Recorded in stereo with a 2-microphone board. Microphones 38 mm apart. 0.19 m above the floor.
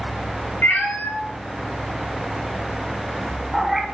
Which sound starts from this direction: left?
A cat meowing, at 0.6 s.